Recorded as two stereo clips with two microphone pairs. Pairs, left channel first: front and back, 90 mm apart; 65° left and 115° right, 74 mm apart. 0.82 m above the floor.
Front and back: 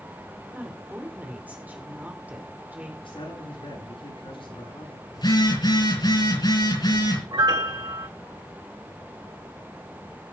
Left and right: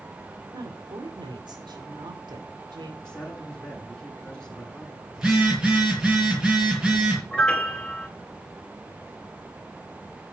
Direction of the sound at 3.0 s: 15° right.